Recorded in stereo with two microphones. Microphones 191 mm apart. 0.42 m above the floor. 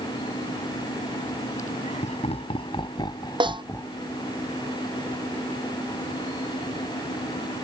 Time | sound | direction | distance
1.6 | laughter | 40° left (ahead or behind) | ?
3.4 | a snare drum | 25° right (ahead or behind) | ?